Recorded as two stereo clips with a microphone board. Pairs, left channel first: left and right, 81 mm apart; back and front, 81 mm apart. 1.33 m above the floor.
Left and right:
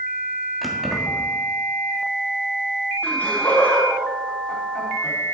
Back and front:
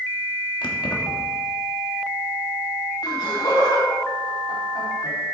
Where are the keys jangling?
Straight behind, 1.7 m.